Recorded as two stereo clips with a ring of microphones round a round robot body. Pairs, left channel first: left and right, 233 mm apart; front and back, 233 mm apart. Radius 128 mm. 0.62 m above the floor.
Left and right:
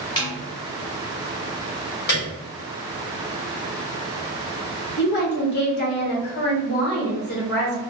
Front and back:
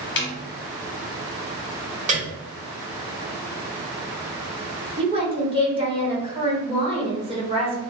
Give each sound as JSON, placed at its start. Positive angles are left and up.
{"t": 0.2, "sound": "a snare drum", "azimuth_deg": 20, "distance_m": 1.0}
{"t": 2.1, "sound": "a piano", "azimuth_deg": 125, "distance_m": 1.7}
{"t": 5.0, "sound": "a woman speaking", "azimuth_deg": 120, "distance_m": 1.3}